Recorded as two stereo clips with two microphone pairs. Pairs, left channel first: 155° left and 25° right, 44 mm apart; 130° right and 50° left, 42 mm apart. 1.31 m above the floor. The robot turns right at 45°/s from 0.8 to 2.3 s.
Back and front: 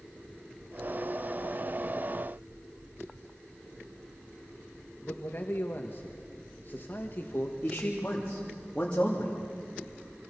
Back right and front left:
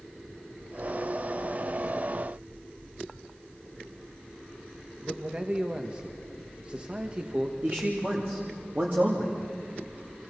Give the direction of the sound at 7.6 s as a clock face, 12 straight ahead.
9 o'clock.